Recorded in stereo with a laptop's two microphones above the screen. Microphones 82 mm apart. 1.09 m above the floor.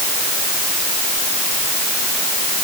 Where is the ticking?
No ticking in this recording.